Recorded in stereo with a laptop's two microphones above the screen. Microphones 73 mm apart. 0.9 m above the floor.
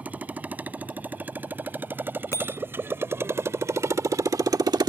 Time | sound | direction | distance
0.0 | a motorcycle | 20° right (ahead or behind) | ?
2.3 | a bicycle bell | 40° left (ahead or behind) | ?